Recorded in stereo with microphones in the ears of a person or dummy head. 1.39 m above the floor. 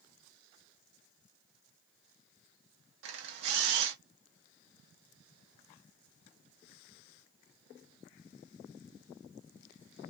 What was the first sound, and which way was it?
A camera shutter, 60° right (ahead or behind).